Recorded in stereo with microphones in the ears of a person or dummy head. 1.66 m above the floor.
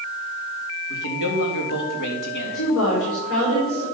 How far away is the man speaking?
About 3 m.